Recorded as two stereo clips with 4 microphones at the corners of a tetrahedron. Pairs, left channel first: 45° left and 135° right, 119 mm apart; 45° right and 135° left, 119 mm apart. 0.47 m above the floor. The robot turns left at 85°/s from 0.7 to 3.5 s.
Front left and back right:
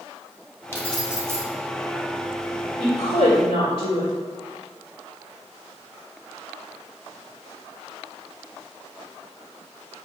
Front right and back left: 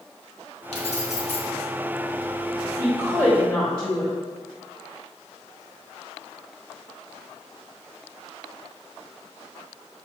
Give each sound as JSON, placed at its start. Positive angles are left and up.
{"t": 0.7, "sound": "keys jangling", "azimuth_deg": -20, "distance_m": 1.9}
{"t": 2.8, "sound": "a woman speaking", "azimuth_deg": 95, "distance_m": 2.0}